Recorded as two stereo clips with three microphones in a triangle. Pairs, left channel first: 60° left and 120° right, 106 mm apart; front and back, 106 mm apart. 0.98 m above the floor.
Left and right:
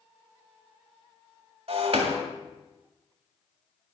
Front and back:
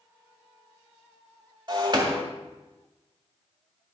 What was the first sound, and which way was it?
Breaking glass, 135° right.